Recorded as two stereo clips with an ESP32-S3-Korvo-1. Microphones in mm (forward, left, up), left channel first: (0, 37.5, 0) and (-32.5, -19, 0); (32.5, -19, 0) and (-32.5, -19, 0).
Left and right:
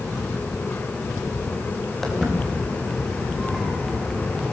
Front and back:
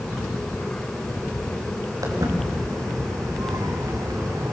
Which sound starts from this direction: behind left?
Footsteps, at 2.0 s.